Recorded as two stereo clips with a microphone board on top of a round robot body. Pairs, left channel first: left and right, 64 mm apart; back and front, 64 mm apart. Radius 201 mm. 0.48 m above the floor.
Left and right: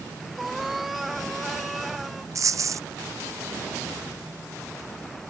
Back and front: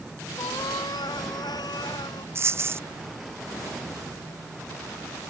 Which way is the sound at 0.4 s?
Straight behind.